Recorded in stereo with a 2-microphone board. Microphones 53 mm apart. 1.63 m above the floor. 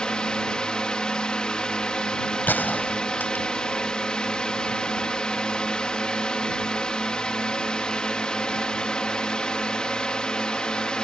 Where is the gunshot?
35° left (ahead or behind).